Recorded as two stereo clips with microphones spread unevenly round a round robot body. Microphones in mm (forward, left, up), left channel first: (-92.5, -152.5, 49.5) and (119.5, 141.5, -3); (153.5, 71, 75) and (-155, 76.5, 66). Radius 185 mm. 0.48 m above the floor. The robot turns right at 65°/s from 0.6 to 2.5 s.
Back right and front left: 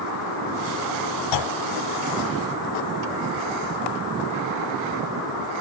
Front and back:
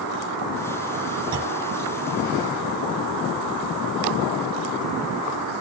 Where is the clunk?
105° right, 0.7 m; by 1.6 s 85° right, 0.7 m.